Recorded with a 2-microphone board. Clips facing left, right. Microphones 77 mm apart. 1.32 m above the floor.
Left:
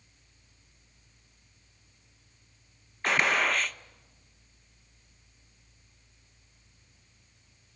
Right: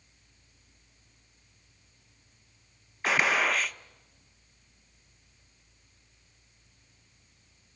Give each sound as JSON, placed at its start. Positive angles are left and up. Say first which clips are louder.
{"t": 3.0, "sound": "a gunshot", "louder": "even", "side_deg": 0, "distance_m": 0.5}